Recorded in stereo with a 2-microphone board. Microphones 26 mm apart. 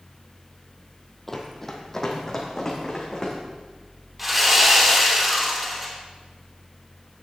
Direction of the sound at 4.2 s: 10° right (ahead or behind).